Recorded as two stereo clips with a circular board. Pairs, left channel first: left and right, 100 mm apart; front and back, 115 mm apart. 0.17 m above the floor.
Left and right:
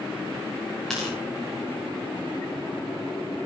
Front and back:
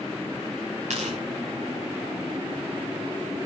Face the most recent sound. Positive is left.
turn(degrees=175)